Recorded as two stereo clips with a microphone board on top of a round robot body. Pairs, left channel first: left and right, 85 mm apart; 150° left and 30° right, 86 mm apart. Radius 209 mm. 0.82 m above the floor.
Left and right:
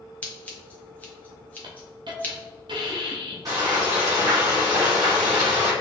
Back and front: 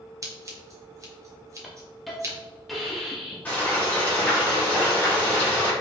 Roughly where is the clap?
I don't hear a clap.